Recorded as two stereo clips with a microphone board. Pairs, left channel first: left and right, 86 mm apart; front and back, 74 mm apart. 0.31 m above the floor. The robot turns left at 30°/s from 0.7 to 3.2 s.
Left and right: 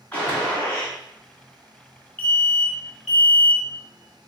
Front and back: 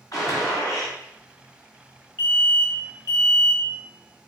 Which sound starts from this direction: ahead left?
An alarm, at 2.2 s.